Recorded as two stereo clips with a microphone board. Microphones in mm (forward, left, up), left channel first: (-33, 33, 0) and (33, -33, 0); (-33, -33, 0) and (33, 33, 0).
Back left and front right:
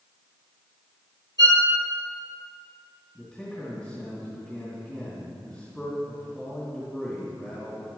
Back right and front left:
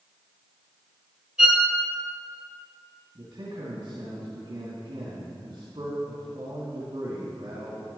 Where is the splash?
No splash in this recording.